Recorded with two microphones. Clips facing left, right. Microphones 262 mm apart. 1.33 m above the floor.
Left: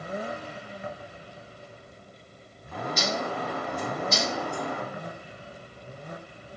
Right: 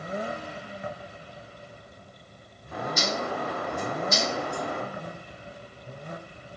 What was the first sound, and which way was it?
A bird, 50° right (ahead or behind).